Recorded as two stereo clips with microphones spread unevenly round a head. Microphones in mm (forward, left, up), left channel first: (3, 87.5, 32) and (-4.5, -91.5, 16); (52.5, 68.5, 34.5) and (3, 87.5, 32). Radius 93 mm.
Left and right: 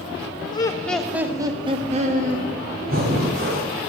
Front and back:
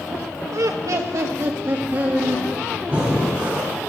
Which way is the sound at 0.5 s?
155° left.